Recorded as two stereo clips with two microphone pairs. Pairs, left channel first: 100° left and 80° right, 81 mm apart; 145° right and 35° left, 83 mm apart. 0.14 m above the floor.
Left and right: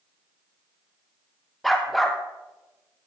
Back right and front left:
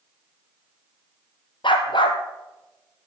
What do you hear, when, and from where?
1.6 s a dog barking: 170° right, 1.3 m